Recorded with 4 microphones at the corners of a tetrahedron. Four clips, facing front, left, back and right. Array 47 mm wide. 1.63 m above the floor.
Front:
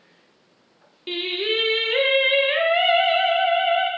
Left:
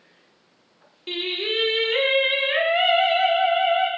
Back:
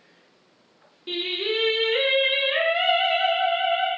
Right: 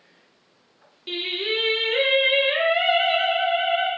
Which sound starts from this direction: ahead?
Singing, at 1.1 s.